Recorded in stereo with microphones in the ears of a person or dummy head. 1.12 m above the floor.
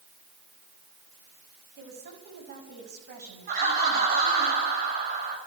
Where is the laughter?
50° right (ahead or behind), 7.5 m.